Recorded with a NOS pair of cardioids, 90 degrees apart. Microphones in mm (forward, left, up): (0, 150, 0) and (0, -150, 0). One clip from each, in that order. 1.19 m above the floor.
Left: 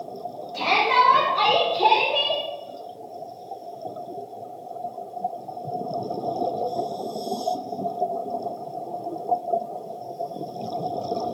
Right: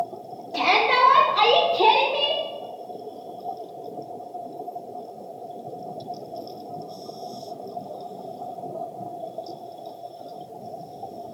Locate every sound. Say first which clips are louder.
0.5 s a shout: even; 60° right, 1.1 m; by 2.4 s 15° left, 0.5 m